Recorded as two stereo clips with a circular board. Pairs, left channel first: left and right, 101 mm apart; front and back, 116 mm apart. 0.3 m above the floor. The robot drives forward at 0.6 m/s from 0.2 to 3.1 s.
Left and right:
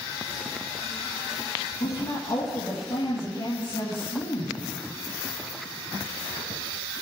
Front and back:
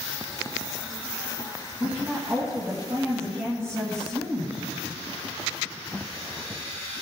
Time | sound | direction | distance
1.8 | a woman speaking | 110° left | 3 m